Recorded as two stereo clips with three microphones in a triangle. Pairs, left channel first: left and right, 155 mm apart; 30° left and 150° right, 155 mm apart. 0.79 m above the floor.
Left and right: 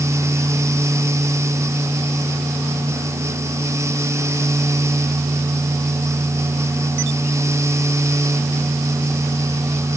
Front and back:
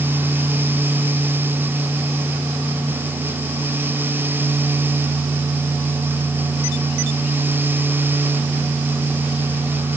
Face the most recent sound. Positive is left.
No sound to turn to.